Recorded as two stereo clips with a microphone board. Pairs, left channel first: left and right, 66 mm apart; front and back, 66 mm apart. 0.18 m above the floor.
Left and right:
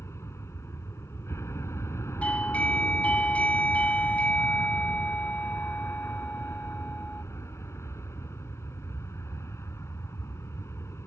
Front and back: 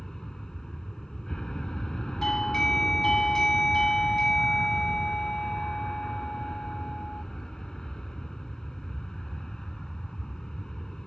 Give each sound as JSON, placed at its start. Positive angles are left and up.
{"t": 0.0, "sound": "an aircraft", "azimuth_deg": 80}
{"t": 2.2, "sound": "a doorbell", "azimuth_deg": 70}